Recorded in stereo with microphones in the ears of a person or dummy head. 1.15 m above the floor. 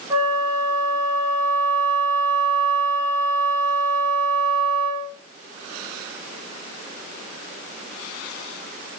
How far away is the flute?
About 1.1 m.